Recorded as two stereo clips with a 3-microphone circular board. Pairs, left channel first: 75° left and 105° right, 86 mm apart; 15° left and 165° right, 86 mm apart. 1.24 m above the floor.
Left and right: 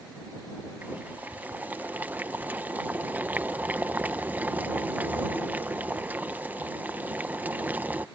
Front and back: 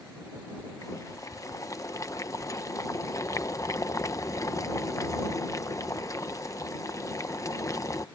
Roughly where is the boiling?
Ahead right.